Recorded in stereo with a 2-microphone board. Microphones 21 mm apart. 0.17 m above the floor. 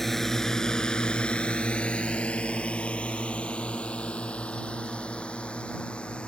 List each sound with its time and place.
0.0 s a drone: 10° left (ahead or behind); by 6.3 s 60° left (ahead or behind)